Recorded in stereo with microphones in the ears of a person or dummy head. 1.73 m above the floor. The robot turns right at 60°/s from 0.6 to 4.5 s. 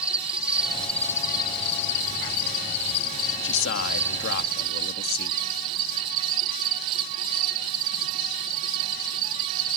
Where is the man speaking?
65° left; by 5.4 s 130° left.